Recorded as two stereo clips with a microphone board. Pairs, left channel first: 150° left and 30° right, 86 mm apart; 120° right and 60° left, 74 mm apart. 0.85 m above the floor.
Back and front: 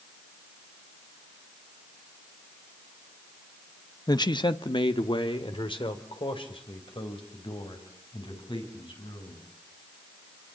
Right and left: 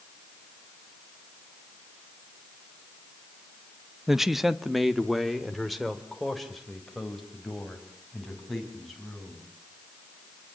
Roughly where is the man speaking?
Behind left.